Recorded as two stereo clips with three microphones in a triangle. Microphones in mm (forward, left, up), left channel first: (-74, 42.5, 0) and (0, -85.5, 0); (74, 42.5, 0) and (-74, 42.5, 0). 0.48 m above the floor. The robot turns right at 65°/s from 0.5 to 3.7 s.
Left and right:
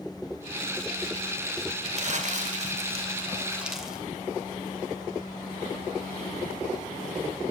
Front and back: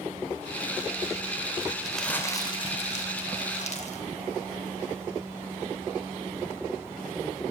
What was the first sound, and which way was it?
Crumpling, 95° right.